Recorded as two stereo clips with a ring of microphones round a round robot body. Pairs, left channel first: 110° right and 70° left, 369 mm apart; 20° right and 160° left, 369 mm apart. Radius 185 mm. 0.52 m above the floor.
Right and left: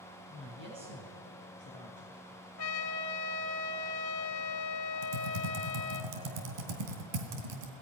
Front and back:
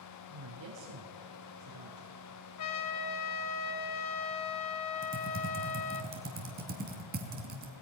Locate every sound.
0.3 s a woman speaking: 130° left, 5.5 m; by 2.2 s 120° left, 6 m
2.6 s a trumpet: 70° right, 1.4 m
5.0 s typing on a keyboard: 90° left, 3 m